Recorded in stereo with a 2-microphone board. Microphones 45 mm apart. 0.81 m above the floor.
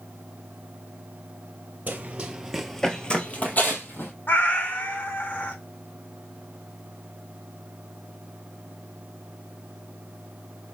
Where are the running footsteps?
35° right (ahead or behind), 0.9 m; by 4.1 s 55° left (ahead or behind), 1.3 m.